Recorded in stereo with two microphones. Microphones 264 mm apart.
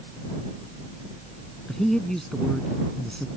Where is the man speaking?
Centre (ahead or behind).